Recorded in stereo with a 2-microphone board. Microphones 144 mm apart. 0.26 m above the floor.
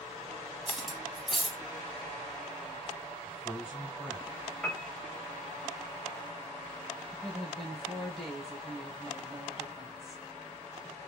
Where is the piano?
5° left (ahead or behind), 1.0 m.